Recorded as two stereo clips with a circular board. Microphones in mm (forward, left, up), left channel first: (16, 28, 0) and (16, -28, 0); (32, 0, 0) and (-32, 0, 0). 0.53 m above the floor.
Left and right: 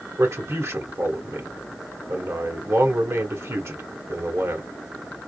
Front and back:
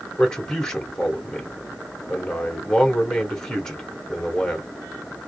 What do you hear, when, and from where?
0.2 s a man speaking: 80° right, 1.5 m